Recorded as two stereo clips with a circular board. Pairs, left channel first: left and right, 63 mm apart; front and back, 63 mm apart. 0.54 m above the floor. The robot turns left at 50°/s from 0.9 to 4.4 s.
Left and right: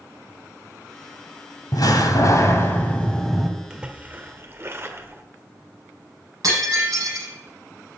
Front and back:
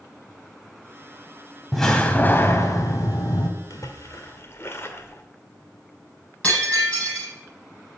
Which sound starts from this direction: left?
A door slam, at 1.7 s.